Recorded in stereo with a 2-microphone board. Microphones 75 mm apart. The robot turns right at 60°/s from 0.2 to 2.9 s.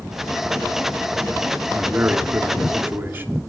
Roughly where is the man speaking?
Centre.